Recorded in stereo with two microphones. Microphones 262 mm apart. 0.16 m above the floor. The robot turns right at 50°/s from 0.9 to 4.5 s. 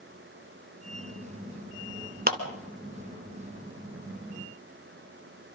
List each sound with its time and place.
2.3 s a clap: 35° right (ahead or behind), 1.6 m